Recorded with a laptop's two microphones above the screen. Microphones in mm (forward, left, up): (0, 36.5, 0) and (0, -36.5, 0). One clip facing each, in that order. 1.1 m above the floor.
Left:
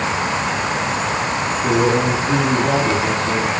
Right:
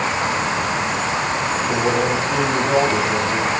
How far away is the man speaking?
About 10 m.